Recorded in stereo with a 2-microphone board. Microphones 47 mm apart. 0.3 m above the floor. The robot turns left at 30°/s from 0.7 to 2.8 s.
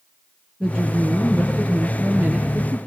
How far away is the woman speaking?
About 6 m.